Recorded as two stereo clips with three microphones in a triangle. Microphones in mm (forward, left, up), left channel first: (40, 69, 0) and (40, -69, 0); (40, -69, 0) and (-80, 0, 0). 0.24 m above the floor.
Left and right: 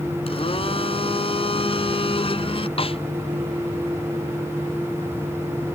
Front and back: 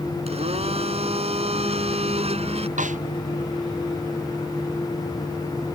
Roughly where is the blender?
Behind left.